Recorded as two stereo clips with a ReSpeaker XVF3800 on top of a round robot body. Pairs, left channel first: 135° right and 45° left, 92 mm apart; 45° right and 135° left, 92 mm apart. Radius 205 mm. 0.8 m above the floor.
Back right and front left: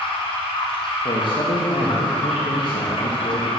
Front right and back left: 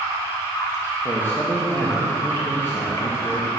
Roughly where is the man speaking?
Right.